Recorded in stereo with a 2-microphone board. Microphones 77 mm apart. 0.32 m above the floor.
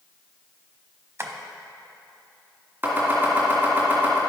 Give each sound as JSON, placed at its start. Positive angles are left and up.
{"t": 1.2, "sound": "tapping", "side_deg": -35, "distance_m": 0.7}
{"t": 2.8, "sound": "chopping", "side_deg": -30, "distance_m": 2.5}